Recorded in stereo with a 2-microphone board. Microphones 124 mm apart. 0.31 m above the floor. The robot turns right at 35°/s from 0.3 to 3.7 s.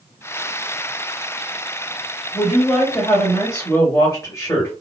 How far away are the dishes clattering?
No dishes clattering in this recording.